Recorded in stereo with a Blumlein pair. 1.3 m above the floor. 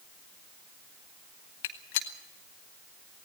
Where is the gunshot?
50° left, 1.6 m.